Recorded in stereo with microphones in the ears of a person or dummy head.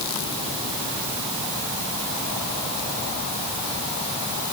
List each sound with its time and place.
Only background noise.